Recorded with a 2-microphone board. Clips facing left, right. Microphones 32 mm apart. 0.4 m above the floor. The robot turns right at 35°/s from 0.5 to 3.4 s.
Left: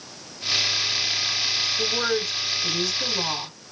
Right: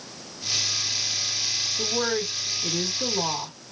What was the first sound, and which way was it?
A woman speaking, 10° right (ahead or behind).